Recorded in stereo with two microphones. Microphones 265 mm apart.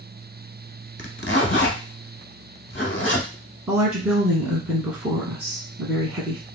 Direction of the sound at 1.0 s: 45° left (ahead or behind).